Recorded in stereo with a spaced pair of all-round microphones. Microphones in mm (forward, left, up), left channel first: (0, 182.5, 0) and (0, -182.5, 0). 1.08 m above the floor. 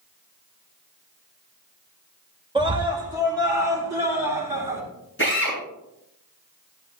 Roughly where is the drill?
Left.